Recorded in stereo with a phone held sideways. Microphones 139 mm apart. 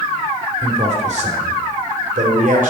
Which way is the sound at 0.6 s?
50° right (ahead or behind).